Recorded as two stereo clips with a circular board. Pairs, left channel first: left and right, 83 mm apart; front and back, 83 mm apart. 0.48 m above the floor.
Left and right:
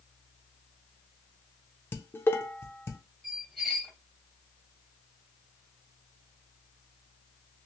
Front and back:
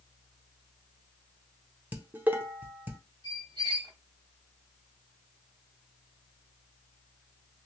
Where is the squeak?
Straight behind, 1.6 m.